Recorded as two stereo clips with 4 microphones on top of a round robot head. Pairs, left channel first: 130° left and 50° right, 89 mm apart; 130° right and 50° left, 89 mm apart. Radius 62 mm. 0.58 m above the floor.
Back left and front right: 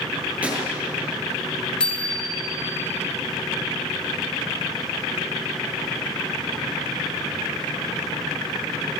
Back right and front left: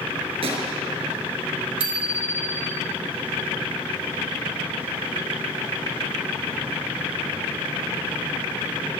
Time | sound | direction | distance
0.4 | a gunshot | 25° left | 5.5 m
1.8 | a bicycle bell | 50° left | 7.5 m